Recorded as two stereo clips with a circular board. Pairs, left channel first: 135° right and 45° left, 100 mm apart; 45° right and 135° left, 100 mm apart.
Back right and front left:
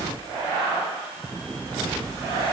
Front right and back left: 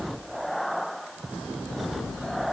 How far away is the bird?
I don't hear a bird.